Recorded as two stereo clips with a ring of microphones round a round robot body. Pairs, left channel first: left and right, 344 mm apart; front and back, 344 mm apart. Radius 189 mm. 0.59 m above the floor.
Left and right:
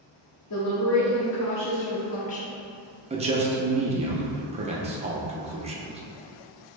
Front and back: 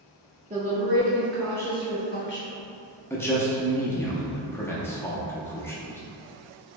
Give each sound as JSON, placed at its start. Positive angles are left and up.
{"t": 0.5, "sound": "a woman speaking", "azimuth_deg": 115, "distance_m": 1.0}
{"t": 3.1, "sound": "a man speaking", "azimuth_deg": -70, "distance_m": 0.6}